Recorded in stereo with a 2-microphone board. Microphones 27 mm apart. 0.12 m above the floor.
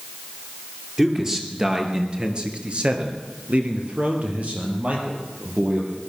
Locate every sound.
1.0 s a man speaking: 15° right (ahead or behind), 3 m; by 6.0 s 55° right (ahead or behind), 4.5 m